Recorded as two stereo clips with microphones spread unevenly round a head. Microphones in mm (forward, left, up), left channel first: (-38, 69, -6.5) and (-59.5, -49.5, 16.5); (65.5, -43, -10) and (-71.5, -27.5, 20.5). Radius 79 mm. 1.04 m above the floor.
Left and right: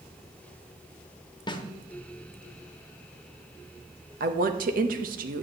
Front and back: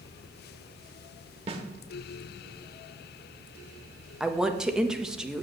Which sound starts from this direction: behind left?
A snare drum, at 1.5 s.